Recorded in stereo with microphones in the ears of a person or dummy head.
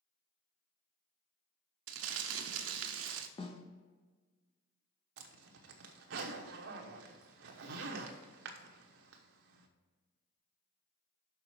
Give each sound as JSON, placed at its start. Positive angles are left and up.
{"t": 1.9, "sound": "crumpling", "side_deg": -75, "distance_m": 0.7}
{"t": 3.4, "sound": "a snare drum", "side_deg": 25, "distance_m": 0.9}
{"t": 5.2, "sound": "a zipper", "side_deg": -75, "distance_m": 1.0}